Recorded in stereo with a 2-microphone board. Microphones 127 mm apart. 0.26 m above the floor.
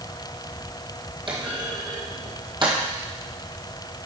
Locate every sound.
1.3 s a clunk: 40° right (ahead or behind), 1.9 m